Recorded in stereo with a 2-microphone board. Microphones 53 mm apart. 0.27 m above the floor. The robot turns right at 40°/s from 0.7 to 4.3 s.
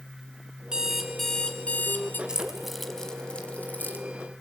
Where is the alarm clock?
15° right, 2 m; by 2.2 s 45° left, 2 m.